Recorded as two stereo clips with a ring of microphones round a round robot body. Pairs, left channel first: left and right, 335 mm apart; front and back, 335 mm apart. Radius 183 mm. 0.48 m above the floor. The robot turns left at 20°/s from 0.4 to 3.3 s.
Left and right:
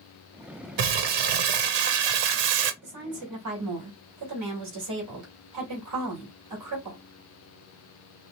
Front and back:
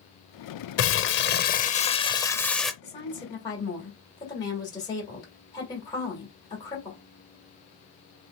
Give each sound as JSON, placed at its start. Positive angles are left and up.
{"t": 0.8, "sound": "crumpling", "azimuth_deg": -50, "distance_m": 0.6}
{"t": 2.8, "sound": "a woman speaking", "azimuth_deg": -65, "distance_m": 2.0}